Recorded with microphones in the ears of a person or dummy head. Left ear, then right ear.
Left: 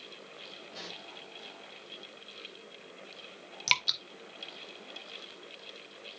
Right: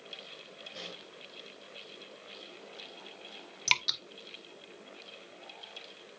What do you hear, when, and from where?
0.7 s a pop: centre (ahead or behind), 6 m
3.7 s dripping: 5° right (ahead or behind), 0.6 m